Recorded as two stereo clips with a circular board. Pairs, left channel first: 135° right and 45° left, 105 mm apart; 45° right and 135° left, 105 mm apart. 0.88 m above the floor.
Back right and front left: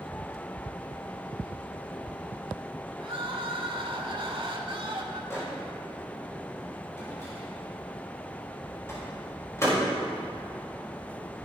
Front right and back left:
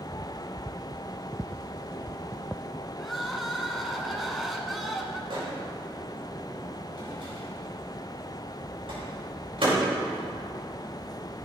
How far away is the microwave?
About 4 m.